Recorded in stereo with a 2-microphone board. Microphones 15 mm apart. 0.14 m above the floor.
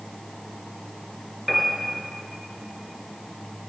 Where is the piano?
10° left (ahead or behind), 2.5 m.